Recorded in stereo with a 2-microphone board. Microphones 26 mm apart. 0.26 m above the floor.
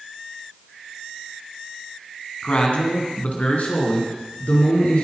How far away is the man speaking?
About 2.5 m.